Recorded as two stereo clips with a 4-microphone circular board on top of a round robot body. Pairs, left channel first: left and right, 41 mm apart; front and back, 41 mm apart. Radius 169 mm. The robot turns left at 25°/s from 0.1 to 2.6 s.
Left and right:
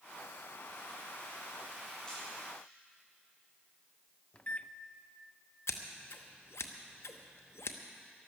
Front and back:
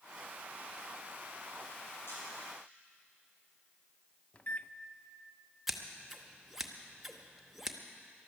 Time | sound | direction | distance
2.1 | a camera shutter | 20° left | 5.5 m
4.3 | a microwave | 45° left | 0.7 m
5.7 | scissors | 95° left | 0.9 m